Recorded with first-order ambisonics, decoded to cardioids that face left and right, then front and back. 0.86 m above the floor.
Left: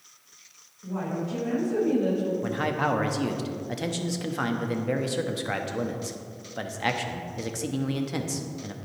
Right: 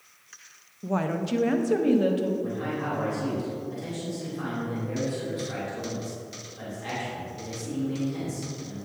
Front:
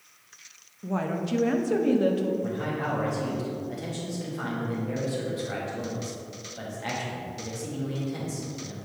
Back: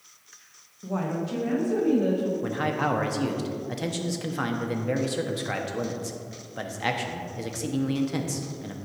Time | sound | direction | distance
0.8 | a woman speaking | 85° right | 0.6 m
2.4 | a man speaking | 125° left | 0.8 m